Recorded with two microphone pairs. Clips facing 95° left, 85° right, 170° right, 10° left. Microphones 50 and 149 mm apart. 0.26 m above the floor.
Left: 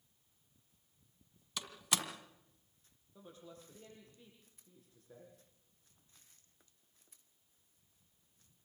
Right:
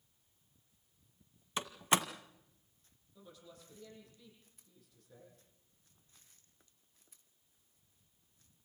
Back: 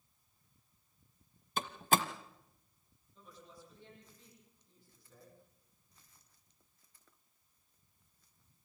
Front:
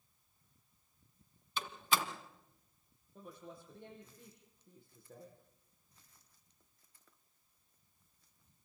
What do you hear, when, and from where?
1.6 s a door slam: 135° right, 1.5 m
3.1 s a woman speaking: 40° left, 9.5 m